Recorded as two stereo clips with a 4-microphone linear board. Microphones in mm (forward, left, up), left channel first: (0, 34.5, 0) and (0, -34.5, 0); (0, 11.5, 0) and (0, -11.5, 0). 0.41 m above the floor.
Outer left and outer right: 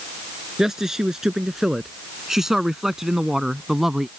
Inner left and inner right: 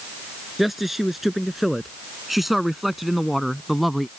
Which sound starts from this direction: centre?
A man speaking, at 0.6 s.